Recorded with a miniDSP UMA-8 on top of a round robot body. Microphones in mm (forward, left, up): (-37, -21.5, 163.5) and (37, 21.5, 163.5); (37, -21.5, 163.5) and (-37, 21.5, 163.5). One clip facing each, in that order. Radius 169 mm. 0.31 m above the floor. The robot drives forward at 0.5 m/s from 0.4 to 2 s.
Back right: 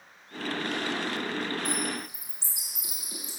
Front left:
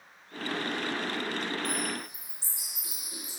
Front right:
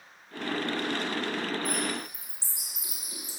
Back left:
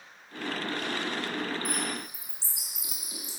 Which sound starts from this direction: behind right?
A bird, at 1.6 s.